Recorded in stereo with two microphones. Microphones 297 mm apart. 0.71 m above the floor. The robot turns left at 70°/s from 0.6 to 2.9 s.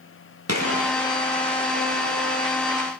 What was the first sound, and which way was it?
A gunshot, 55° right (ahead or behind).